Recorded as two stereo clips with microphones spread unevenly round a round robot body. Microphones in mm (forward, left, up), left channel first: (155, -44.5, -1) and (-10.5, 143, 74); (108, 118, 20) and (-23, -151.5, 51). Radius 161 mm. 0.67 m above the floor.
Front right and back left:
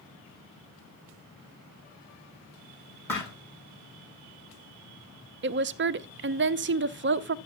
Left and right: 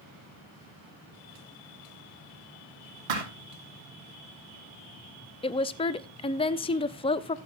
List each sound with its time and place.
3.1 s a thud: 135° right, 3.5 m
5.4 s a woman speaking: 105° left, 0.5 m